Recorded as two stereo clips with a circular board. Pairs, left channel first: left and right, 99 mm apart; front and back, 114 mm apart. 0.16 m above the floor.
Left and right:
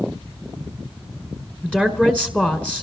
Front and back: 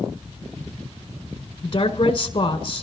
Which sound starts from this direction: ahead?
A woman speaking, at 1.6 s.